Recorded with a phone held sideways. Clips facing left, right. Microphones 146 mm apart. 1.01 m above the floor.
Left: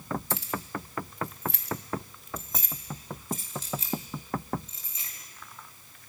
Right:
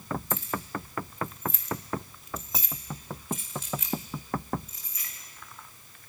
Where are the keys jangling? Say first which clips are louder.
Right 1 dB; 75° left (ahead or behind), 1.3 m; by 5.1 s 25° left (ahead or behind), 3 m.